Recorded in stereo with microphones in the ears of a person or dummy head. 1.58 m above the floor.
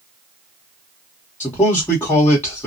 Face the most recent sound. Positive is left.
turn(degrees=10)  # may be behind; listen again after turning